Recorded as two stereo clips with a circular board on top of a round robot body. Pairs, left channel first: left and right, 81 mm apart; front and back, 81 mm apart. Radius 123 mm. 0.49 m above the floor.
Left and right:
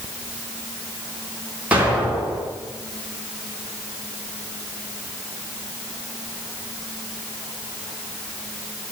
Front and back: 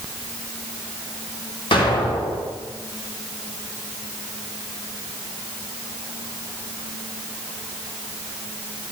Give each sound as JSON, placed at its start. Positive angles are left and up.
{"t": 1.7, "sound": "an explosion", "azimuth_deg": -20, "distance_m": 3.5}